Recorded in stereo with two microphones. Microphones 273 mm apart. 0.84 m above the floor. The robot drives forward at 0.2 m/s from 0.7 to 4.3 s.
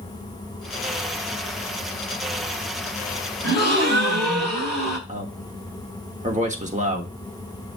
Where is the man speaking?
25° right (ahead or behind), 1.4 m.